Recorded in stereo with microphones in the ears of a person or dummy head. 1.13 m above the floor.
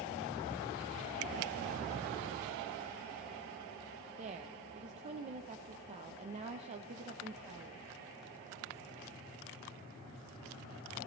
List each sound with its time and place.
4.2 s a woman speaking: 35° right (ahead or behind), 0.7 m